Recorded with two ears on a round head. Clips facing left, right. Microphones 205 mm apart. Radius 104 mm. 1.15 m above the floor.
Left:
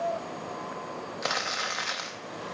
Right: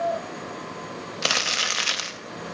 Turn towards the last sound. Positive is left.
turn(degrees=-40)  # may be behind; listen again after turning